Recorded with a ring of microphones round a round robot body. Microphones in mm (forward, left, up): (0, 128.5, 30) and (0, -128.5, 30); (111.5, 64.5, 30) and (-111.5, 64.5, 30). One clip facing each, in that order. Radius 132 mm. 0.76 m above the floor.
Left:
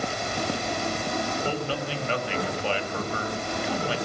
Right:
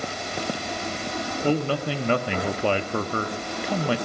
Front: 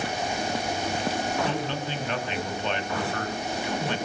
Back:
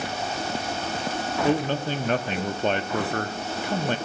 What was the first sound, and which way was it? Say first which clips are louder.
A man speaking: right 6 dB, back 6 dB; 125° right.